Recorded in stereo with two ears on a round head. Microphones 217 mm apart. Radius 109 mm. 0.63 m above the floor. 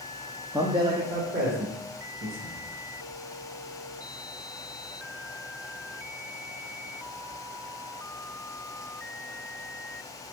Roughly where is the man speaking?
Centre.